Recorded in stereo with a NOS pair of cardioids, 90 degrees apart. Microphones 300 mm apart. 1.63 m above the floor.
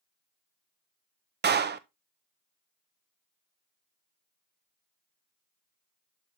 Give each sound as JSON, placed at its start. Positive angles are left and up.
{"t": 1.4, "sound": "a clap", "azimuth_deg": -35, "distance_m": 0.7}